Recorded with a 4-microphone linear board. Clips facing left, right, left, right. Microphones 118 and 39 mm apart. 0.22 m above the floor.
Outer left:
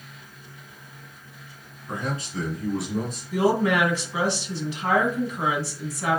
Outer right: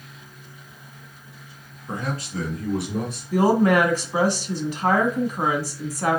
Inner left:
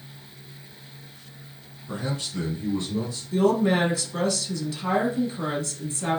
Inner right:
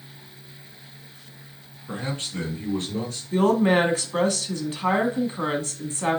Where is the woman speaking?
45° right (ahead or behind), 1.4 m.